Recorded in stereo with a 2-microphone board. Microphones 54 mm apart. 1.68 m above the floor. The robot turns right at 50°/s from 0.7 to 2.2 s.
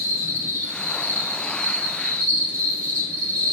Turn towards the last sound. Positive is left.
turn(degrees=150)